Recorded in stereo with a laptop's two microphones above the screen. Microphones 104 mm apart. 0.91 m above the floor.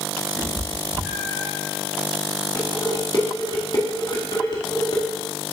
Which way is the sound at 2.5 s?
45° left (ahead or behind).